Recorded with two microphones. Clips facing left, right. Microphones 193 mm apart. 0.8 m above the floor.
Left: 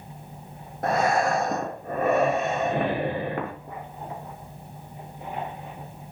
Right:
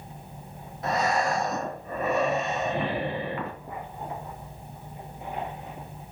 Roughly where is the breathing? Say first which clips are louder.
Left 3 dB; left.